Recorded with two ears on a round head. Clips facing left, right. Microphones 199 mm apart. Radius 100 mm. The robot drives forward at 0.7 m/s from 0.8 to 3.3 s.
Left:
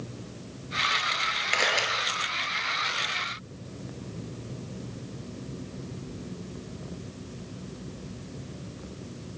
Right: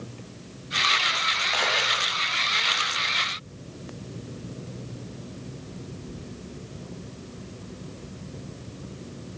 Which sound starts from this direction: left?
A camera shutter, at 1.5 s.